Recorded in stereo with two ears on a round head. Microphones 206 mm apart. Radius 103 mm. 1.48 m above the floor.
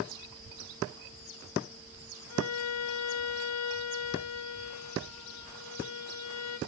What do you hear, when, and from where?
2.3 s a violin: 75° left (ahead or behind), 1.5 m